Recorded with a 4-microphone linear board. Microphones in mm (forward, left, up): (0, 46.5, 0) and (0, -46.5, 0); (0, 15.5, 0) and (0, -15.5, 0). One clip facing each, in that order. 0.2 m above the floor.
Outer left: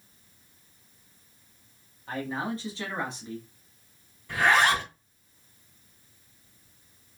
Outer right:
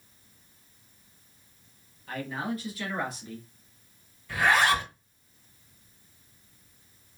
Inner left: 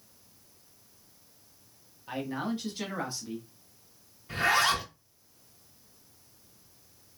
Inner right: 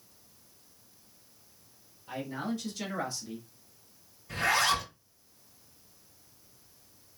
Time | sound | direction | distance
2.1 | a man speaking | 30° left (ahead or behind) | 1.0 m
4.3 | a zipper | 25° left (ahead or behind) | 2 m